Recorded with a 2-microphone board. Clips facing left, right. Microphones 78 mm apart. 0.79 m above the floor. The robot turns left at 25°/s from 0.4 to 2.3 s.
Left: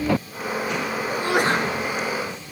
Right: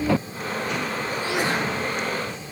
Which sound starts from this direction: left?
A sneeze, at 1.1 s.